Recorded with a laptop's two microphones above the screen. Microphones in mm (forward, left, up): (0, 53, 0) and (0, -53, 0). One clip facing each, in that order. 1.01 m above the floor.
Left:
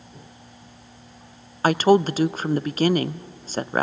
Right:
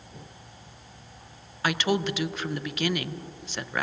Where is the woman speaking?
40° left (ahead or behind), 0.5 m.